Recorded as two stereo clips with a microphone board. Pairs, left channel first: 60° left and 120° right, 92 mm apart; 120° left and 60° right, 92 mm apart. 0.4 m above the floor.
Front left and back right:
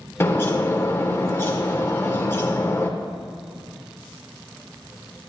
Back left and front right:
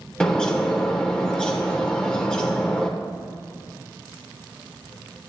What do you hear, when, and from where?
0.2 s a bird: 50° left, 0.9 m